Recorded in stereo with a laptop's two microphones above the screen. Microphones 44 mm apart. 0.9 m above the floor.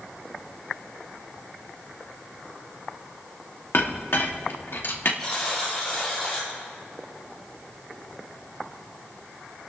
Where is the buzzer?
10° left (ahead or behind), 5.5 m.